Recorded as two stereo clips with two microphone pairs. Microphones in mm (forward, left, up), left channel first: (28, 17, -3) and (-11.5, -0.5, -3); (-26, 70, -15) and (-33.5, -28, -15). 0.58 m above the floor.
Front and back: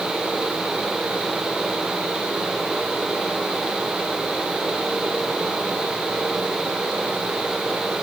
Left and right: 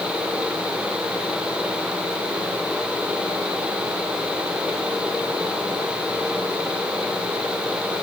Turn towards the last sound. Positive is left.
No sound to turn to.